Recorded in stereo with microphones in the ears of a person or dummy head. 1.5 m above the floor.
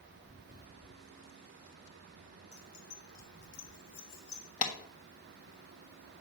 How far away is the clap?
About 1.4 m.